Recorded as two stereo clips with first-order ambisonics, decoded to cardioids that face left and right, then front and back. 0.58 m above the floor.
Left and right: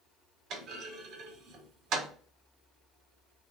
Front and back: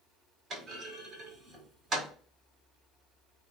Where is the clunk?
120° right, 1.7 m.